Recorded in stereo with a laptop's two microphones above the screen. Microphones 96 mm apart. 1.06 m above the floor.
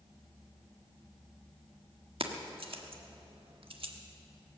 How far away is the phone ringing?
No phone ringing in this recording.